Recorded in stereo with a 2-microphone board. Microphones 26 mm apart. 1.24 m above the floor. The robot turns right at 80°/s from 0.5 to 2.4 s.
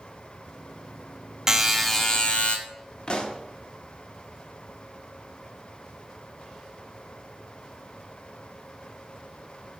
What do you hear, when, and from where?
1.5 s a buzzer: 20° right, 0.8 m; by 2.6 s 50° left, 0.8 m
3.1 s a pop: 35° left (ahead or behind), 0.9 m